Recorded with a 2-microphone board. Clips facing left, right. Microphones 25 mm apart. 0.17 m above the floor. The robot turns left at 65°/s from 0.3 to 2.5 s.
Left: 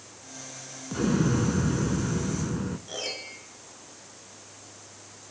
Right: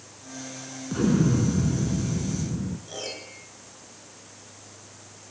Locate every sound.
0.9 s an explosion: straight behind, 0.8 m; by 2.8 s 80° left, 0.8 m
2.9 s a piano: 10° left (ahead or behind), 3 m